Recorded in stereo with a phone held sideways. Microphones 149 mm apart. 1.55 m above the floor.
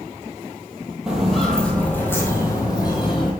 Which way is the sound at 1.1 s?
5° right (ahead or behind).